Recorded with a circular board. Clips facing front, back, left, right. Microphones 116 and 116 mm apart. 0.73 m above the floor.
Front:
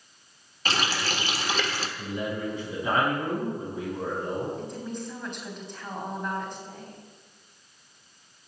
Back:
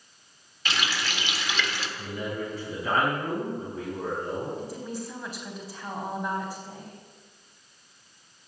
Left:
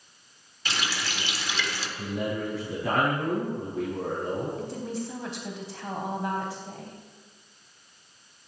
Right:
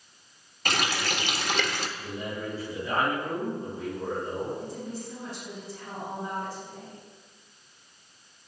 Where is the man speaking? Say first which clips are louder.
Front 2 dB, left 5 dB; 75° left, 5.5 m.